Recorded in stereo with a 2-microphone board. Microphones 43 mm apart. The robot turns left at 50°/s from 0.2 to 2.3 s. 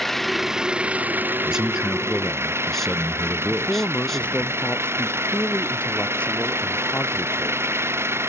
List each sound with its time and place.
0.0 s an engine running: 5° left; by 8.3 s 100° right
1.4 s a man speaking: 145° right; by 4.5 s 170° left
3.5 s a man speaking: 30° left (ahead or behind)